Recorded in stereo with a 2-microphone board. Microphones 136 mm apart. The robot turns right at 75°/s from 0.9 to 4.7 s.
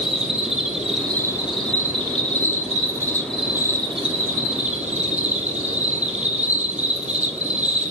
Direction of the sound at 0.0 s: 5° right.